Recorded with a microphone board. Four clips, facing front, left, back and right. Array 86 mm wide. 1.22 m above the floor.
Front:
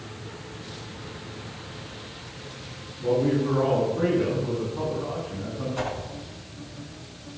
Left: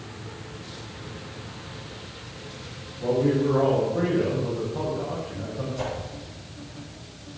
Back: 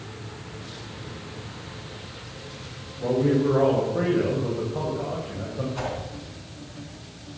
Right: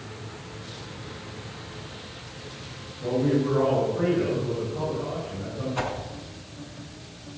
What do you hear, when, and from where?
3.0 s a man speaking: 160° left, 6 m
5.8 s a whoosh: 90° right, 3.5 m